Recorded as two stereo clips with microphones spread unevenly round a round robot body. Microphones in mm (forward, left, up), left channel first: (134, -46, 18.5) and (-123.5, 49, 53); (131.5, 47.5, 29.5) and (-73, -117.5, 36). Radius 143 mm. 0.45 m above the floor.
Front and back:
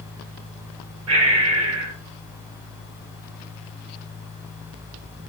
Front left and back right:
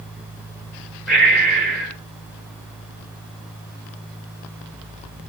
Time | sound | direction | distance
1.1 | breathing | 125° left | 1.2 m